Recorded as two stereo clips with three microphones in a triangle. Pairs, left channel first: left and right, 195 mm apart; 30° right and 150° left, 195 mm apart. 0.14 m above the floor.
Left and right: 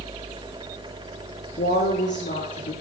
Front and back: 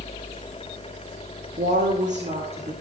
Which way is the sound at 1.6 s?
110° left.